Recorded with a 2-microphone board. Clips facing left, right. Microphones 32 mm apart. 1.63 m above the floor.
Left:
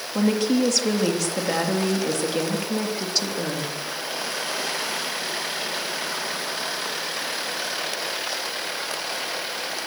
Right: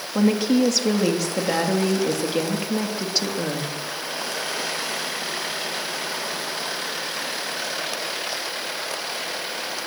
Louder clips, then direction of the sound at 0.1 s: Right 2 dB; 5° right (ahead or behind).